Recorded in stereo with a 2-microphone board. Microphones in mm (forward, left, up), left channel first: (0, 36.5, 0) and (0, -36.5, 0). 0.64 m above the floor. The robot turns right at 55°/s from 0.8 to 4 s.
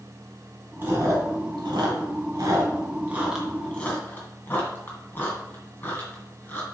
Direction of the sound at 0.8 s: 35° right (ahead or behind).